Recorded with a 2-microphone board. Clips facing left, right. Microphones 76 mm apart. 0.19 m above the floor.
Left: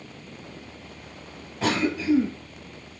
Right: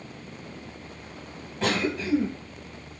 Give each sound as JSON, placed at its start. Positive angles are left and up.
{"t": 1.6, "sound": "a cough", "side_deg": 5, "distance_m": 1.4}